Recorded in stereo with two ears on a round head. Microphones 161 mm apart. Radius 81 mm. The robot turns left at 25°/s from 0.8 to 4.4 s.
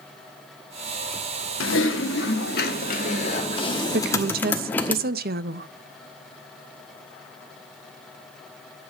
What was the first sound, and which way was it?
Typing on a keyboard, 80° left.